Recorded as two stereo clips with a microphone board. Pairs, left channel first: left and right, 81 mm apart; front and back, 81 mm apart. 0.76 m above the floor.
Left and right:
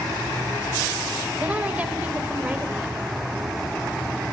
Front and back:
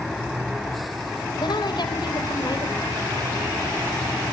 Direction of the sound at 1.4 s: 20° right.